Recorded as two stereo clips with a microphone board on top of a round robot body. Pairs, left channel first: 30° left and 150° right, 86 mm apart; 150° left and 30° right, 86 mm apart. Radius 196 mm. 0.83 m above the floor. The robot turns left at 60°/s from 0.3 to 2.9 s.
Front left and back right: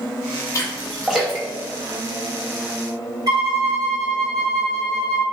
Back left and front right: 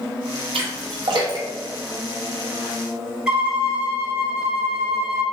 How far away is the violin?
About 1.3 m.